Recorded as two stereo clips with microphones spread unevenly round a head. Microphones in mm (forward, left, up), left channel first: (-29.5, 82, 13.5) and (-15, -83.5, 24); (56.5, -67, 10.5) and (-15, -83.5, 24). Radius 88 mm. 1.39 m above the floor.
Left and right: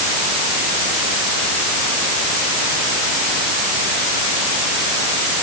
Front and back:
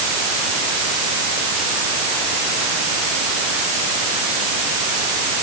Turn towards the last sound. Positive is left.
No sound to turn to.